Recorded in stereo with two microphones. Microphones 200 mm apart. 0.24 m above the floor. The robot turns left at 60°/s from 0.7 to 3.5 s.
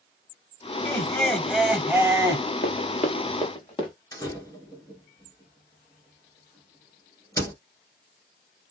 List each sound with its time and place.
0.8 s laughter: 15° left (ahead or behind), 1.0 m; by 2.5 s 20° right (ahead or behind), 1.0 m
2.6 s running footsteps: 60° left (ahead or behind), 1.2 m; by 3.9 s 30° left (ahead or behind), 2 m
4.1 s a door slam: 15° left (ahead or behind), 1.9 m